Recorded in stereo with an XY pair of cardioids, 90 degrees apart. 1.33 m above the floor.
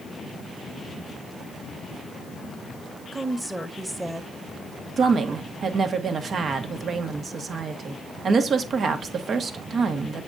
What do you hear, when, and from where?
3.1 s a woman speaking: 15° right, 1.5 m
5.0 s a woman speaking: 55° right, 1.5 m